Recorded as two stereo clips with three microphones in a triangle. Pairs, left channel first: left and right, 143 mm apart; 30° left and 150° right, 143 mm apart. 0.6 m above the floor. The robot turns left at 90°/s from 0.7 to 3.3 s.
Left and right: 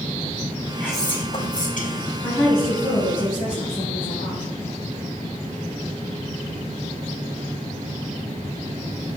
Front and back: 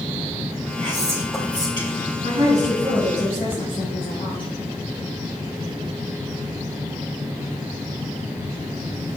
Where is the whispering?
170° left, 1.6 m; by 2.1 s 50° left, 1.6 m.